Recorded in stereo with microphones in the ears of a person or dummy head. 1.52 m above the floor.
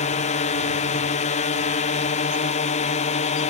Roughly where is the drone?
Left.